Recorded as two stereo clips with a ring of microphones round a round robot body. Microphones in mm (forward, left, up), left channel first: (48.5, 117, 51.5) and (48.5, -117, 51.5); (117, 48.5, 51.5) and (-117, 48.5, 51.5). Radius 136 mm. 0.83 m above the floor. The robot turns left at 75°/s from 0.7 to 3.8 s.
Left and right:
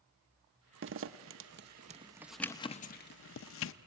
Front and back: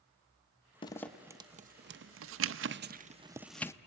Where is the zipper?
65° right, 0.6 m; by 3.7 s 75° left, 0.6 m.